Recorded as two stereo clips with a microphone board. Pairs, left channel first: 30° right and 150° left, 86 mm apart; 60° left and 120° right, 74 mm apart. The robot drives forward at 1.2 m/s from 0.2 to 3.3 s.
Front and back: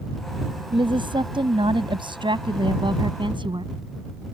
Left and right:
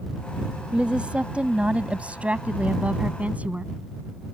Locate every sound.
0.7 s a woman speaking: 165° left; by 3.7 s 170° left